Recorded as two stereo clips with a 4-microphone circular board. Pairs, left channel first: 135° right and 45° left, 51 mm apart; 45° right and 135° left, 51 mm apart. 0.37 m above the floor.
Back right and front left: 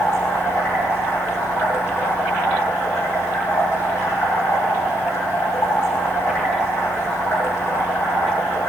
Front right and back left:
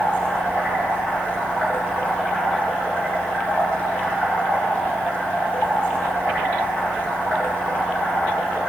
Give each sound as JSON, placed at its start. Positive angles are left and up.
{"t": 0.0, "sound": "running water", "azimuth_deg": -105, "distance_m": 9.0}